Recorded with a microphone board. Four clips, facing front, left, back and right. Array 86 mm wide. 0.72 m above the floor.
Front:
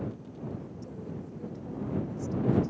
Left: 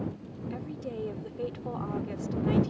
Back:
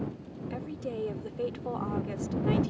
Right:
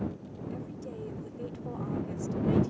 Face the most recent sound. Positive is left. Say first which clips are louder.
# left 4 dB, back 5 dB
turn(degrees=160)